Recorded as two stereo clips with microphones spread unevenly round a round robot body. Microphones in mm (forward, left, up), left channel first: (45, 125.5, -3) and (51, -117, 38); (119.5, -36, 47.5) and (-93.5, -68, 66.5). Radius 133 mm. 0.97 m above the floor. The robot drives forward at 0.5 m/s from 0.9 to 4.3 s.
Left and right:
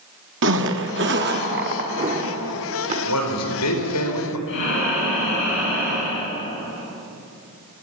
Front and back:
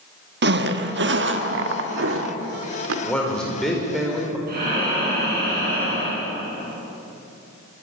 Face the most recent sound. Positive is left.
turn(degrees=140)